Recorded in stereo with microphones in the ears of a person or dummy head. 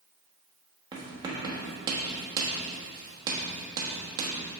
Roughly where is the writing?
Centre.